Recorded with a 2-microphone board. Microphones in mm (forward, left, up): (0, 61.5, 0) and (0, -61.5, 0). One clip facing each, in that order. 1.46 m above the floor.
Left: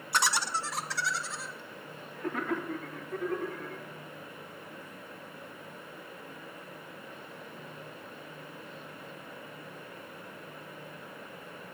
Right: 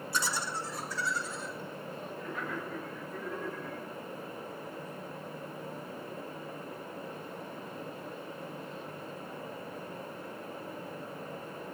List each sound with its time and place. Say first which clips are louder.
0.1 s laughter: left 5 dB; 65° left (ahead or behind), 0.7 m